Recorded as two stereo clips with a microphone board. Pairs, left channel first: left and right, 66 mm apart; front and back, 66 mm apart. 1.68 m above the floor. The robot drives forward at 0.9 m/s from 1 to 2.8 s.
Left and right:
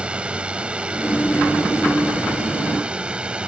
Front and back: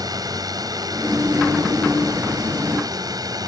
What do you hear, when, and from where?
0.0 s a drone: 165° right